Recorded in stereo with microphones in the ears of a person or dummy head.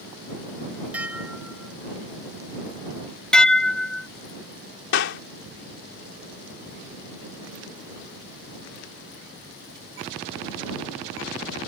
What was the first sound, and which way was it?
Dishes clattering, 10° right (ahead or behind).